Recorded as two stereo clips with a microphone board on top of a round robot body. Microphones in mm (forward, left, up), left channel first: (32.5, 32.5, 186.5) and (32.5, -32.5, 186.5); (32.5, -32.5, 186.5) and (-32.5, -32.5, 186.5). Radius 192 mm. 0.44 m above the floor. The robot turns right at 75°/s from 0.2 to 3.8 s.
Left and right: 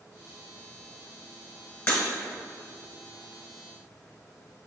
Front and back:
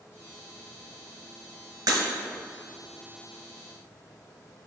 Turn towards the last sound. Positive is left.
turn(degrees=-70)